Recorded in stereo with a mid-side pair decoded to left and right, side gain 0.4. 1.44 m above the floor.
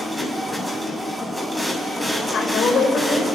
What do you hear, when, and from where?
0.0 s a machine running: 5° left, 6.5 m
2.2 s a woman speaking: 60° left, 6 m